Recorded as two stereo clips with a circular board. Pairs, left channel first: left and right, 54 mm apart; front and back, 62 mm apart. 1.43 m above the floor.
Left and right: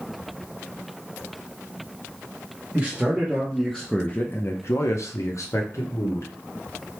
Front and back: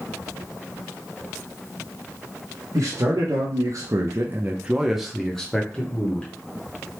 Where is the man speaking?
165° right, 0.9 m; by 6.3 s 65° left, 1.2 m.